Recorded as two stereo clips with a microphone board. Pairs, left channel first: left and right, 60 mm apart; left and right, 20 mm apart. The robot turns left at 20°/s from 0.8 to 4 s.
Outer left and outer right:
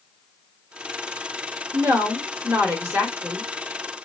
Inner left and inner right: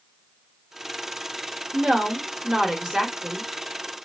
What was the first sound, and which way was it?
A woman speaking, 120° right.